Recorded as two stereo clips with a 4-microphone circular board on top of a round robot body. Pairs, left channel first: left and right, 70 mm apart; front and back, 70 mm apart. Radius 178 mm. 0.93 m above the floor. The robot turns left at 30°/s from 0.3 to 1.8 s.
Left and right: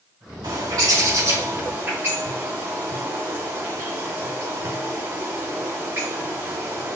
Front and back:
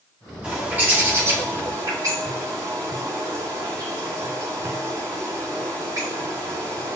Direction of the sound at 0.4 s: 105° right.